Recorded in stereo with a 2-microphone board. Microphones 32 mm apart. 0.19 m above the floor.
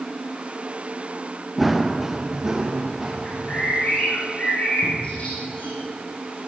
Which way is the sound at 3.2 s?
45° left (ahead or behind).